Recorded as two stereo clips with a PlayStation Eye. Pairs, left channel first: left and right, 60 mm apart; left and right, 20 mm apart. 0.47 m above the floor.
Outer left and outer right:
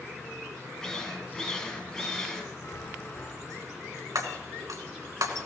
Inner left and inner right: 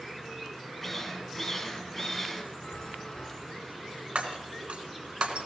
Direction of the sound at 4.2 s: 75° right (ahead or behind).